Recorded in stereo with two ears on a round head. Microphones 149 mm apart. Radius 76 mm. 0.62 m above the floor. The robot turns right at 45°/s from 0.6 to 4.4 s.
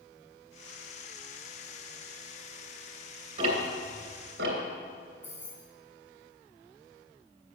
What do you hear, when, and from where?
3.4 s ticking: 40° right (ahead or behind), 2.5 m; by 4.6 s 85° right, 2.5 m
5.2 s keys jangling: 10° left (ahead or behind), 2.5 m